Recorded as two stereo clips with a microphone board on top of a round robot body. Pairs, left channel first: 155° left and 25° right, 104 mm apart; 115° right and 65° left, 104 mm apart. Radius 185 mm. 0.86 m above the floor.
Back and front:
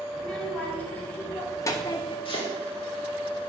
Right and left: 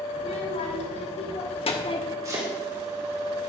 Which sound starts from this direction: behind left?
Chopping, at 2.2 s.